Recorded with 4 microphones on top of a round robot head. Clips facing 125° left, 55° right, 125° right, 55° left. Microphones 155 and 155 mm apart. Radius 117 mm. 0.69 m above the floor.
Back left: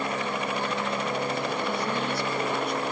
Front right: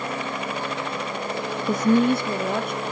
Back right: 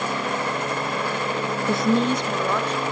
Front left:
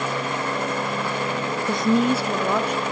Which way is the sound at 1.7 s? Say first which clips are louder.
Front right 10 dB, front left 1 dB; 45° right.